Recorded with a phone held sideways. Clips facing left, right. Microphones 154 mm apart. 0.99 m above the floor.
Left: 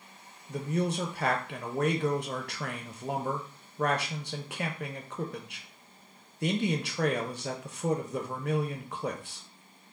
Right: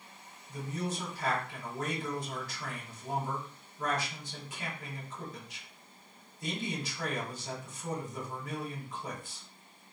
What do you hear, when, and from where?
0.5 s a man speaking: 65° left (ahead or behind), 0.6 m